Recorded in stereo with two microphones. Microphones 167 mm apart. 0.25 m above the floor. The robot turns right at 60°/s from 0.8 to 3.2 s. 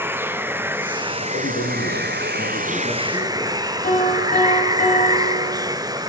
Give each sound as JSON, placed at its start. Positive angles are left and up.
{"t": 0.0, "sound": "running water", "azimuth_deg": -165, "distance_m": 1.0}
{"t": 1.3, "sound": "a man speaking", "azimuth_deg": 55, "distance_m": 5.0}
{"t": 3.8, "sound": "a piano", "side_deg": 55, "distance_m": 7.5}